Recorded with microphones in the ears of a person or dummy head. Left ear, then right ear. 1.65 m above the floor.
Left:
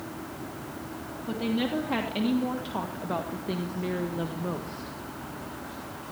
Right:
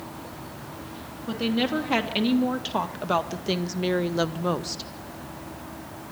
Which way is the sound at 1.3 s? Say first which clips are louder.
Right 4 dB; 30° right (ahead or behind).